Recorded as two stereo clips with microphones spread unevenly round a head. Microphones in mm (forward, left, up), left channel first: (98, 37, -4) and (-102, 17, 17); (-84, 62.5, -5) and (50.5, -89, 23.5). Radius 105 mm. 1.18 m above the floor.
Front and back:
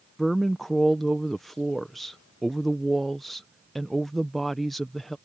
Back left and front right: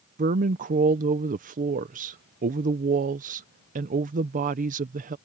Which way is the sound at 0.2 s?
75° right.